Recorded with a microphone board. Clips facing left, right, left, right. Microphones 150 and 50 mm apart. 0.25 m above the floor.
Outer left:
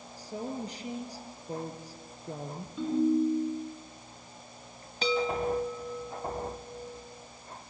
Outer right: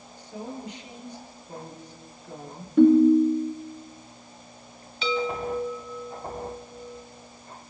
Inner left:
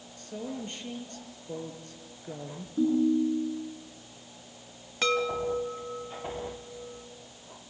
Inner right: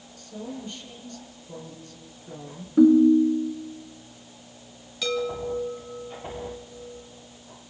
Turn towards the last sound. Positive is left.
turn(degrees=45)  # may be behind; listen again after turning